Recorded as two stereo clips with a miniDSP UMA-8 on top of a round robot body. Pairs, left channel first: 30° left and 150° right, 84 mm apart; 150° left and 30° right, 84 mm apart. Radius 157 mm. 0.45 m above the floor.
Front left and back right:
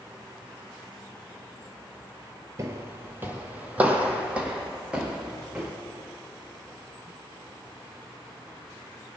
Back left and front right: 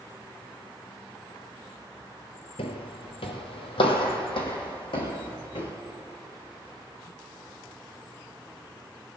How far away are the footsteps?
About 0.6 m.